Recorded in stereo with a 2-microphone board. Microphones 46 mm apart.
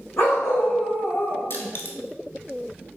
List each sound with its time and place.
0.2 s a dog barking: 85° left, 2.0 m; by 1.4 s 35° left (ahead or behind), 0.8 m
1.5 s crushing: 55° left (ahead or behind), 0.7 m